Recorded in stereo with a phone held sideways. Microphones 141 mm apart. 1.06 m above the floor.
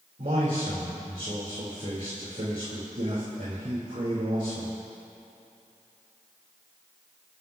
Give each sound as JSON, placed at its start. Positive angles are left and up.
{"t": 0.2, "sound": "a man speaking", "side_deg": -70, "distance_m": 3.0}